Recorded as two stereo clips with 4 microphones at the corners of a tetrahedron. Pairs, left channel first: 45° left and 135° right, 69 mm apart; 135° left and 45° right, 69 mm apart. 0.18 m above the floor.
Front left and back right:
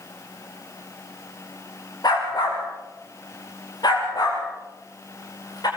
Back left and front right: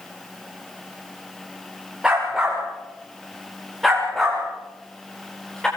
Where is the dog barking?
35° left, 9 m; by 5.7 s 55° left, 9 m.